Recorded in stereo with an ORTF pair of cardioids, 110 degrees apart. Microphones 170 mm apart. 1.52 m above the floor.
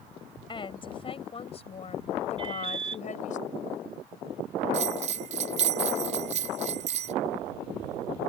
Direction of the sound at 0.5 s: 30° left.